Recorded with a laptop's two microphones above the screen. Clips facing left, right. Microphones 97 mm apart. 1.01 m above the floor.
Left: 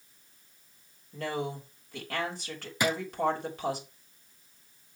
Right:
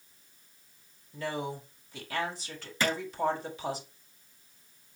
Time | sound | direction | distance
1.1 | a woman speaking | 55° left (ahead or behind) | 3 m
2.8 | a drawer | 15° left (ahead or behind) | 0.5 m